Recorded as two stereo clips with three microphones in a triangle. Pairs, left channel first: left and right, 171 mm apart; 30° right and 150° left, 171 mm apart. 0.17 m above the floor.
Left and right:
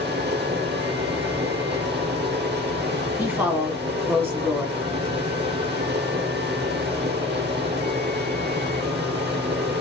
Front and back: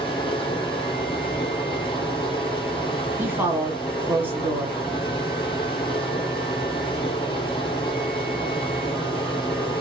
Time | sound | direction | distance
0.0 | running water | 90° right | 0.9 m
3.2 | a woman speaking | 145° right | 1.1 m